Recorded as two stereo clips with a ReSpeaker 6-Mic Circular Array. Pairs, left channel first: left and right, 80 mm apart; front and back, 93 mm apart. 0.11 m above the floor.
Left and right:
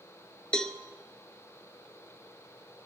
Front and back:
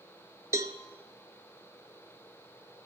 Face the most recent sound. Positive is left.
turn(degrees=160)